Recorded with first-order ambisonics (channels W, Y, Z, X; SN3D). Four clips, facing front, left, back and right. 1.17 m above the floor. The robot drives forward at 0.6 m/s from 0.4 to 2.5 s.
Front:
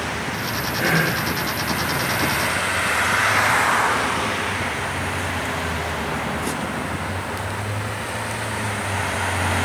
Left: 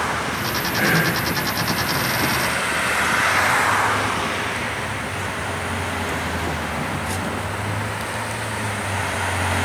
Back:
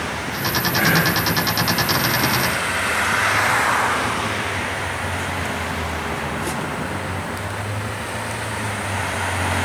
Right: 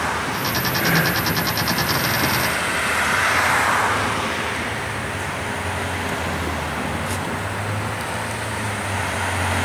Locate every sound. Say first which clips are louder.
0.8 s whispering: left 1 dB, back 2 dB; 160° left, 1.9 m